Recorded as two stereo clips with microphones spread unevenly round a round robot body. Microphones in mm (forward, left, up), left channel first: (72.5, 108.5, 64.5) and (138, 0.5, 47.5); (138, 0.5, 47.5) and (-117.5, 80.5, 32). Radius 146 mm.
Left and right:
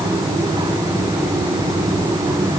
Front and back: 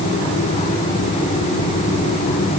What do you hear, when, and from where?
Only background noise.